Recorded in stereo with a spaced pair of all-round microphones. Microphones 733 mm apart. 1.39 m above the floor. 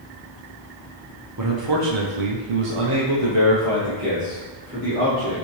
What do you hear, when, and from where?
1.4 s a man speaking: 25° right (ahead or behind), 0.7 m